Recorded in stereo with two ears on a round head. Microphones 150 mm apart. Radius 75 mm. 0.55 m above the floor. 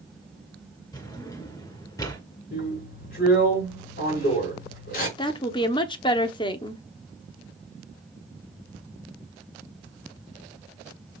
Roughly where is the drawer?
Left.